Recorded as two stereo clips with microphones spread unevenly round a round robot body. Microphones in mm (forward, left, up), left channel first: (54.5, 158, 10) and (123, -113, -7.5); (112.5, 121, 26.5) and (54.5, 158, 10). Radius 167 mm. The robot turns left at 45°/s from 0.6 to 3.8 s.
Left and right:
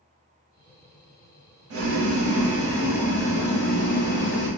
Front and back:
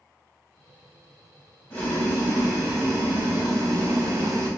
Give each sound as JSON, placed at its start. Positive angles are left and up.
{"t": 1.7, "sound": "boiling", "azimuth_deg": -105, "distance_m": 0.9}